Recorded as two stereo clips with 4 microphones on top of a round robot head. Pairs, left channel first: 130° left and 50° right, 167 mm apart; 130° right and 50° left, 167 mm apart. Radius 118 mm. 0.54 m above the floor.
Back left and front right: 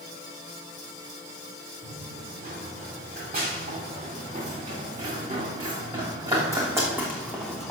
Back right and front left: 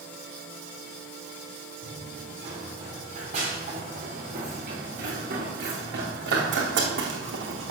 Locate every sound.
1.8 s running footsteps: 10° right, 5 m; by 7.7 s 40° left, 2 m